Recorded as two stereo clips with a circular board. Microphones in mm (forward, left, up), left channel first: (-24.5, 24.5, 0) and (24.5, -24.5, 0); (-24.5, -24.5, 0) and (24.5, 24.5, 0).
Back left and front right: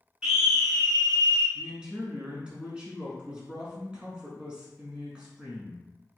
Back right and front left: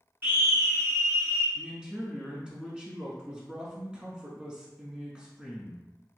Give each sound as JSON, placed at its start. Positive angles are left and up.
{"t": 0.2, "sound": "a scream", "azimuth_deg": 25, "distance_m": 1.2}
{"t": 1.6, "sound": "a man speaking", "azimuth_deg": -5, "distance_m": 1.1}